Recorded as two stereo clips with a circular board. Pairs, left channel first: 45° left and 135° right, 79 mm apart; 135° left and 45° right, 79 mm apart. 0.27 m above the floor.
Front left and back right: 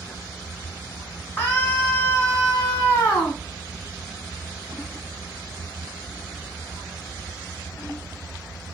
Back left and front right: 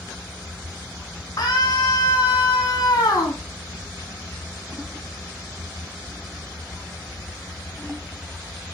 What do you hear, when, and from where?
1.4 s a scream: 100° left, 2.5 m